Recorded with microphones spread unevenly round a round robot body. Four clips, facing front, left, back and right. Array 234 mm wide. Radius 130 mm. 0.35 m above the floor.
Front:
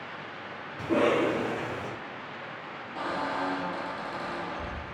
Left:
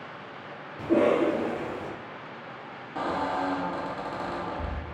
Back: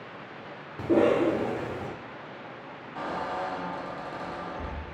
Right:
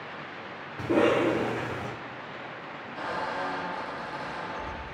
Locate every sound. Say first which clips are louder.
0.8 s a cough: left 1 dB, back 3 dB; 170° right, 1.2 m
3.0 s a squeak: left 4 dB, front 1 dB; 80° left, 0.5 m